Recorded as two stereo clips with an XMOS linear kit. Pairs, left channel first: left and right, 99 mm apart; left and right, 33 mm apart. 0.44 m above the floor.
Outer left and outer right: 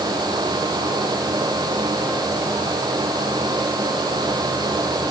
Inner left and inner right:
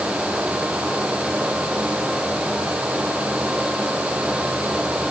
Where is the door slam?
No door slam in this recording.